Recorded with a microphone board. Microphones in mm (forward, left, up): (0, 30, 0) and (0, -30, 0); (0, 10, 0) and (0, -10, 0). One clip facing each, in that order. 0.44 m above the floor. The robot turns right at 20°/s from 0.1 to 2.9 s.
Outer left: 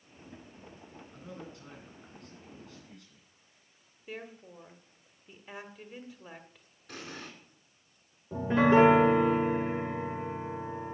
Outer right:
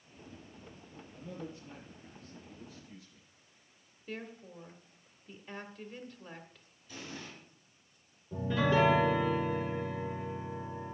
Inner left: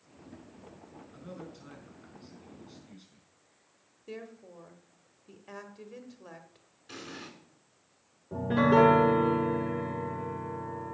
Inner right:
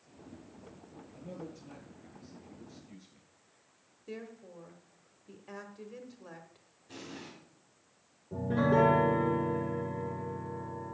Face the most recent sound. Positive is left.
turn(degrees=35)  # may be behind; listen again after turning